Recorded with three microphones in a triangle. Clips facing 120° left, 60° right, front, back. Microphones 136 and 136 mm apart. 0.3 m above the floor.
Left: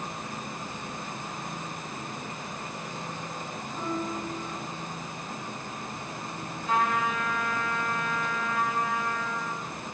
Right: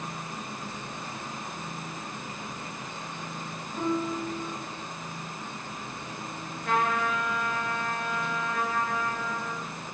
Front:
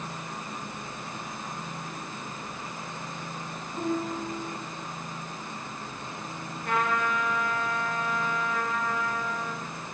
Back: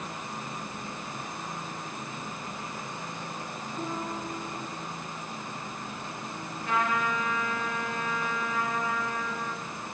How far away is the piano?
About 2 m.